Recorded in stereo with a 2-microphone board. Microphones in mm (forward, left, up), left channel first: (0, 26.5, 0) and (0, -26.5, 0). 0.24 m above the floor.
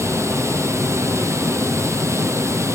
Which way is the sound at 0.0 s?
55° right (ahead or behind).